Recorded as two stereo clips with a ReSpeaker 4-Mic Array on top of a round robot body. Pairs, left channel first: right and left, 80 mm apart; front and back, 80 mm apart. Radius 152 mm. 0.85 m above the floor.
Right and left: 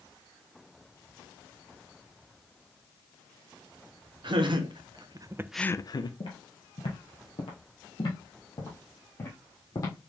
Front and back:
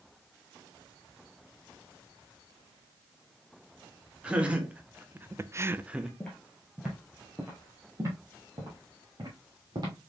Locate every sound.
4.2 s laughter: 105° left, 1.7 m; by 6.1 s 100° right, 0.8 m
6.2 s footsteps: 75° right, 1.1 m; by 9.9 s 140° right, 2.5 m